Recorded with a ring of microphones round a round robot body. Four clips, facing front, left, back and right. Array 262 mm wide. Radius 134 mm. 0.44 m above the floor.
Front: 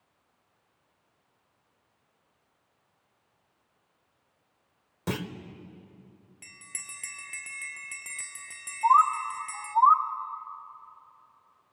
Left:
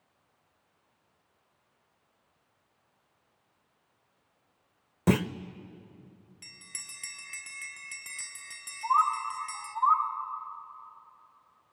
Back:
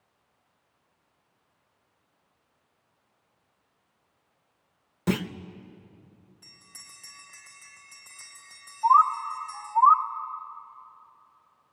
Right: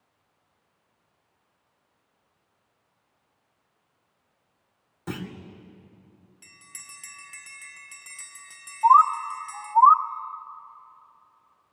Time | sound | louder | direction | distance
5.1 | a clunk | left 9 dB, back 5 dB | 100° left | 0.7 m
6.4 | a bell | right 3 dB, front 5 dB | 10° left | 1.6 m
8.8 | a bird | right 9 dB, back 1 dB | 70° right | 0.9 m